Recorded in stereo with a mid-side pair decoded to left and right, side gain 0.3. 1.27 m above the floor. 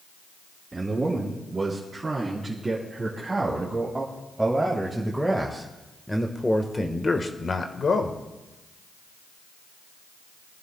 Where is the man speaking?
40° right, 4 m; by 8.2 s 65° left, 1.5 m.